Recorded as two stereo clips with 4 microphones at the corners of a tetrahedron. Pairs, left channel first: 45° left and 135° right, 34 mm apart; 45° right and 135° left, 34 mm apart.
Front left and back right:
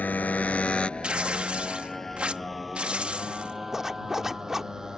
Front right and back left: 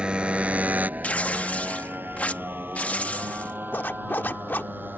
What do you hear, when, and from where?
0.0 s a motorcycle: 70° left; by 5.0 s 150° left
1.0 s tearing paper: 85° right
3.7 s a zipper: 60° right